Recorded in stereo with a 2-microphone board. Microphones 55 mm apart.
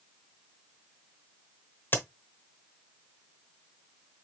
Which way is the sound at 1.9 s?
45° left (ahead or behind).